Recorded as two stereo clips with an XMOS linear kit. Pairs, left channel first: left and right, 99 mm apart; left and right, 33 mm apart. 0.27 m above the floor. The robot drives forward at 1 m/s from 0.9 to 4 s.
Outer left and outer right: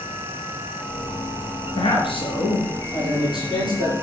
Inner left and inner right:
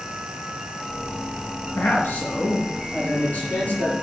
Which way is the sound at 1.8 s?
65° left (ahead or behind).